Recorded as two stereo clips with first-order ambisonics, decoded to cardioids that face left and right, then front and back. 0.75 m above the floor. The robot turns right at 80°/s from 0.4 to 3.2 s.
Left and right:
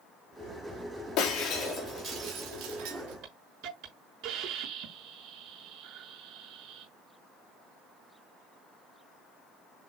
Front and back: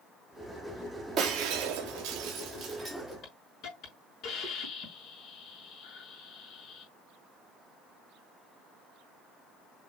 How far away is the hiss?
About 6.5 m.